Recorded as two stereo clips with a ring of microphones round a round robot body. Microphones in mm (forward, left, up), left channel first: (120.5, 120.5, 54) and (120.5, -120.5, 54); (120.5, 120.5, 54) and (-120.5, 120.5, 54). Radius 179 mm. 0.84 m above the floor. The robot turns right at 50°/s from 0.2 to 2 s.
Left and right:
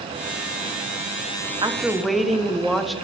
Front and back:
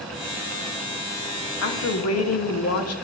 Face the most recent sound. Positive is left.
turn(degrees=0)